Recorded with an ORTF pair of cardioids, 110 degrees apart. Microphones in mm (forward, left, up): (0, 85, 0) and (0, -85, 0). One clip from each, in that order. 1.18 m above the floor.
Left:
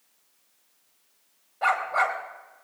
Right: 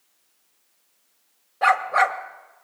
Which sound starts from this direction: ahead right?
A dog barking, at 1.6 s.